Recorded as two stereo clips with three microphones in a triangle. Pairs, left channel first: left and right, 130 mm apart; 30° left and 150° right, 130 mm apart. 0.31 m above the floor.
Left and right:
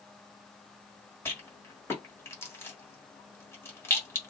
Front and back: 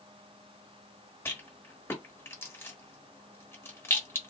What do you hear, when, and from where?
1.2 s a rattle: 60° left, 1.3 m